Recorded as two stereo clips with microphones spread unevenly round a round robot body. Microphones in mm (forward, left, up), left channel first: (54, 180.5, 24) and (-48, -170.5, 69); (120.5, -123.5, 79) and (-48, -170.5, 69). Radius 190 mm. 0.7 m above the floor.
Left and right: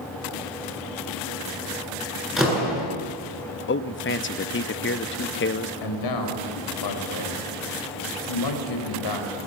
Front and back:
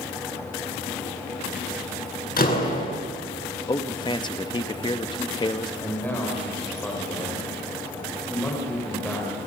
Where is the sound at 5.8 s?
100° left, 4.5 m.